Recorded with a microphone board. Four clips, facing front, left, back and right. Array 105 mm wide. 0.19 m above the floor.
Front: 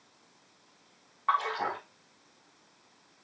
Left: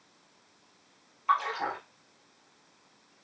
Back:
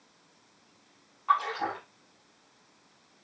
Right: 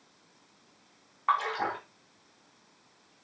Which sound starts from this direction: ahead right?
A splash, at 1.3 s.